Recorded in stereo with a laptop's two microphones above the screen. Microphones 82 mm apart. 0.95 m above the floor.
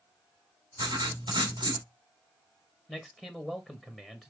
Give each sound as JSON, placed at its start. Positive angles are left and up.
{"t": 0.8, "sound": "writing", "side_deg": -65, "distance_m": 1.4}
{"t": 2.9, "sound": "a man speaking", "side_deg": 10, "distance_m": 0.9}